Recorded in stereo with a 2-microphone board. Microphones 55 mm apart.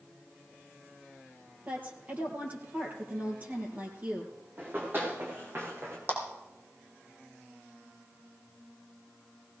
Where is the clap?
40° right (ahead or behind), 4.5 m.